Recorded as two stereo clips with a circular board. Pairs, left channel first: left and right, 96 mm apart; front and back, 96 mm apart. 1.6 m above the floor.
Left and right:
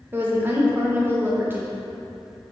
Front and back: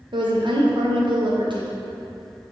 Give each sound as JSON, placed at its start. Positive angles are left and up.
{"t": 0.1, "sound": "a woman speaking", "azimuth_deg": -155, "distance_m": 0.7}